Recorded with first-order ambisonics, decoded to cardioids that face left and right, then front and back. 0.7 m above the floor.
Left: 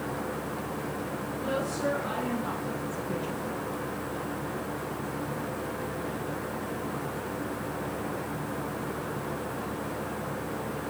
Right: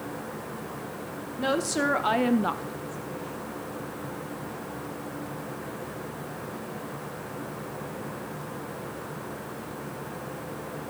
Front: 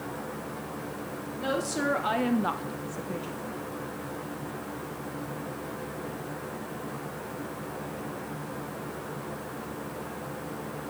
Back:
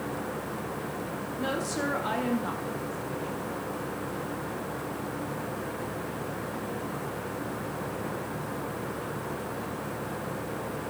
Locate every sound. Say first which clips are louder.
1.4 s a woman speaking: right 5 dB, front 2 dB; 90° right, 1.7 m; by 3.6 s 55° left, 1.1 m